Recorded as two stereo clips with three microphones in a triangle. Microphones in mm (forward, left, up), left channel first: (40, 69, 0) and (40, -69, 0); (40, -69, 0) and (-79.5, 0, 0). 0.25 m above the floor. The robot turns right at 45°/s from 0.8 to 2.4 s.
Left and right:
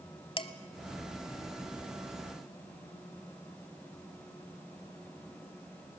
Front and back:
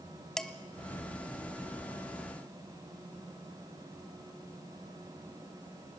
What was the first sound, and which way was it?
Dishes clattering, 55° left.